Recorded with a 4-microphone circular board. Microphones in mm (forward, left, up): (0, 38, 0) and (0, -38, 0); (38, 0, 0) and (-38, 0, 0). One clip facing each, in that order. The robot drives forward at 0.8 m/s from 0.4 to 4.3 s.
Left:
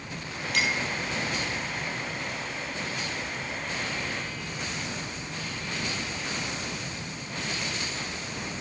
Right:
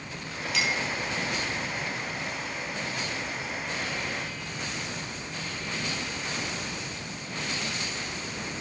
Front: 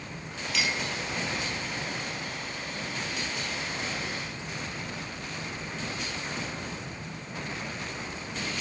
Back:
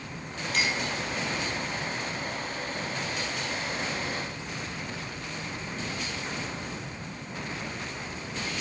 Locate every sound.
0.5 s a clink: 130° left, 6 m; by 0.8 s 135° left, 6 m